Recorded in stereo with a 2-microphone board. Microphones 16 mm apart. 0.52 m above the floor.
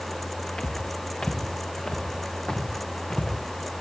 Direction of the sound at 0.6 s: 80° left.